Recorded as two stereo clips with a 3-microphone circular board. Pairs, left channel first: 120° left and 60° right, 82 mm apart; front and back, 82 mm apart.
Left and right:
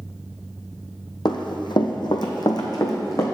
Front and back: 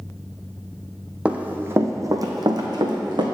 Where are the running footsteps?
105° left, 0.9 m; by 3.2 s 165° left, 1.4 m.